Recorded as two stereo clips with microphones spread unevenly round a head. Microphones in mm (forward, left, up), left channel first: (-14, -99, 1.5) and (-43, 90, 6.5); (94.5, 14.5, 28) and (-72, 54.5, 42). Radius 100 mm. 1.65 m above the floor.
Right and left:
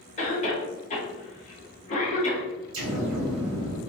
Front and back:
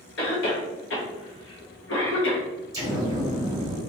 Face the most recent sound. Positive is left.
turn(degrees=100)